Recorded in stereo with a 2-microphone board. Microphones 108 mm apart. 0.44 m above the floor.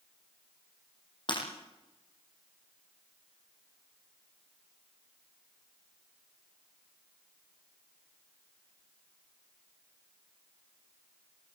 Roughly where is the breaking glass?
Left.